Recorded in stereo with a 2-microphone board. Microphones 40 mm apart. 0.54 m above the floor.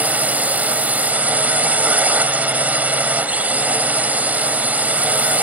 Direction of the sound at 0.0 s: 45° right (ahead or behind).